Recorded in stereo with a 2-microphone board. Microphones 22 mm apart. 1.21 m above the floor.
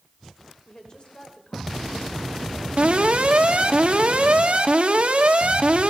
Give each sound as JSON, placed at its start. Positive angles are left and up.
{"t": 0.7, "sound": "a woman speaking", "side_deg": 35, "distance_m": 4.0}
{"t": 2.8, "sound": "an alarm", "side_deg": -60, "distance_m": 1.7}